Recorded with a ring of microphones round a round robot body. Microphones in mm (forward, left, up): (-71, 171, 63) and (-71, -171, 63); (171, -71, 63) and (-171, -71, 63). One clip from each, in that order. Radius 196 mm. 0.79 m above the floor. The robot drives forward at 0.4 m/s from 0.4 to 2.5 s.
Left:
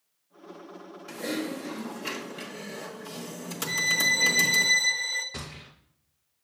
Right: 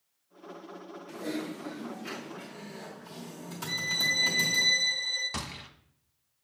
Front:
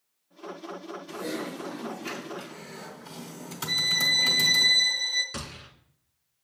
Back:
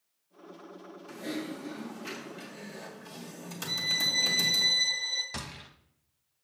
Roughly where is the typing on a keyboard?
Left.